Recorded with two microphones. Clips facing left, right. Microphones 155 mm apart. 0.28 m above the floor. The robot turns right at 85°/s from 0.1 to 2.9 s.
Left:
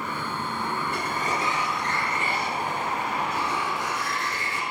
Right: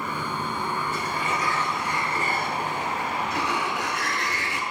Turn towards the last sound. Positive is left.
turn(degrees=-80)